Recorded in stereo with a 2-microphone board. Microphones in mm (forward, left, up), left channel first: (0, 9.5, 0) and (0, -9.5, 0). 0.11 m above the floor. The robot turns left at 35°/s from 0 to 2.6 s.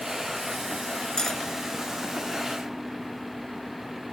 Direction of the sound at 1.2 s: 30° left (ahead or behind).